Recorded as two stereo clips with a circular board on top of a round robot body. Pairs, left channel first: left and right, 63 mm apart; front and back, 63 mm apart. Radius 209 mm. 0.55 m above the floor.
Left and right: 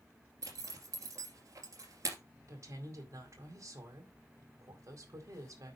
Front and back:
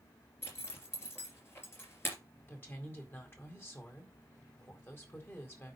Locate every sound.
0.4 s a zipper: 50° right, 2.5 m
2.5 s a woman speaking: 55° right, 4 m